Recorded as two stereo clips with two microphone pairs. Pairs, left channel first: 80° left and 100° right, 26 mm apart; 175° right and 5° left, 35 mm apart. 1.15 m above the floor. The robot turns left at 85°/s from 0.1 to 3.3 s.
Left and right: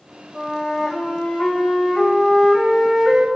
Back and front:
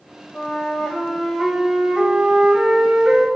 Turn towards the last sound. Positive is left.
turn(degrees=-70)